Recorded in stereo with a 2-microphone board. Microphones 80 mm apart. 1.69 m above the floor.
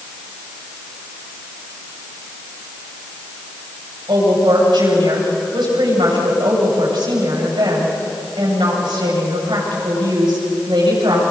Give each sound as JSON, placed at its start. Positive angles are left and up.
{"t": 4.1, "sound": "a woman speaking", "side_deg": -85, "distance_m": 8.0}